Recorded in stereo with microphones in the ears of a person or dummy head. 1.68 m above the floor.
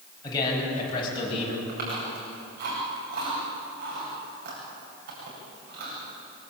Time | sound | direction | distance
0.2 | a man speaking | 25° left (ahead or behind) | 10 m
1.7 | chewing | 60° right (ahead or behind) | 9.5 m